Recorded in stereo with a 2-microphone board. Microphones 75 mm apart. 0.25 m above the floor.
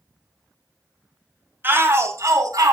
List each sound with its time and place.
1.6 s a shout: 30° right (ahead or behind), 1.3 m; by 2.7 s 55° right (ahead or behind), 2 m